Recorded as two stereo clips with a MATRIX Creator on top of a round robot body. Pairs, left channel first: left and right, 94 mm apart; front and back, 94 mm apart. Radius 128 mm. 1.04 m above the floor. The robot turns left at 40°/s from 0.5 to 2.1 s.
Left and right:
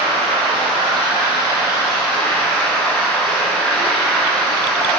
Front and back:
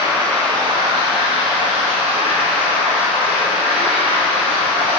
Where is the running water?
120° right, 1.2 m; by 5.0 s 175° left, 1.2 m.